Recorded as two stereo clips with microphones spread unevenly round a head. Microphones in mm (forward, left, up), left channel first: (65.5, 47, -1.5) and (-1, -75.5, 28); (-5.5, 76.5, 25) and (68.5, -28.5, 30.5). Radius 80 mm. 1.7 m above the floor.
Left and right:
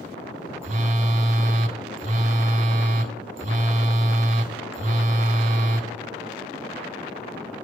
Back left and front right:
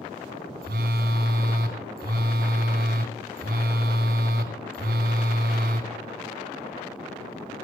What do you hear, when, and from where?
0.6 s a phone buzzing: 90° right, 1.2 m